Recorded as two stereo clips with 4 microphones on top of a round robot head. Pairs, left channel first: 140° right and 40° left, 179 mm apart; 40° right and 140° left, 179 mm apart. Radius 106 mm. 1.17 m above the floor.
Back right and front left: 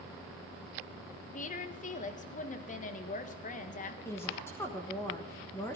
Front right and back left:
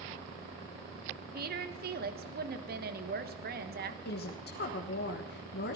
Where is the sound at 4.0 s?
65° right, 1.4 m.